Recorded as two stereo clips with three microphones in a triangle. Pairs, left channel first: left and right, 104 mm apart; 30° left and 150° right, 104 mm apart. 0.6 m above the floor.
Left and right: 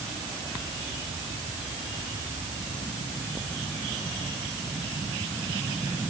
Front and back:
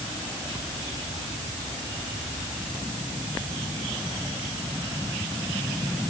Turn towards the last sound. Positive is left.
No sound to turn to.